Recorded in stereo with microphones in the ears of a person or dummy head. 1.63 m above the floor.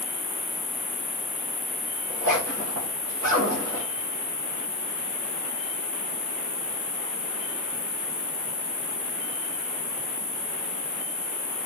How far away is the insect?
About 1.2 m.